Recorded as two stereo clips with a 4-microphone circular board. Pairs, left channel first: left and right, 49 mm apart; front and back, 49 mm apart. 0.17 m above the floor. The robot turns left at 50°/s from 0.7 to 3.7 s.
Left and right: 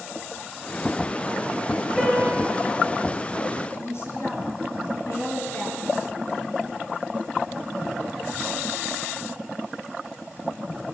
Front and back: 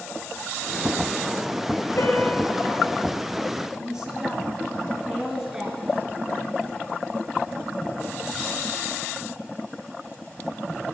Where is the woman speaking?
105° left, 2.5 m.